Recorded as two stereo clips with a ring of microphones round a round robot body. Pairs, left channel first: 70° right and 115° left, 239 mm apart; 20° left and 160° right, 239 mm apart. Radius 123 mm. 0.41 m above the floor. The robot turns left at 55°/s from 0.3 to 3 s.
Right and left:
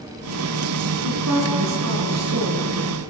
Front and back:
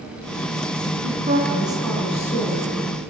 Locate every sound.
1.0 s a woman speaking: 150° left, 5.5 m; by 3.1 s 45° left, 5.5 m